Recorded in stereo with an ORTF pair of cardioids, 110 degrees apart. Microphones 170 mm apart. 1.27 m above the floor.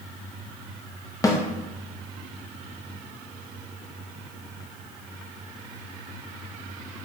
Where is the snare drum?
20° left, 0.7 m.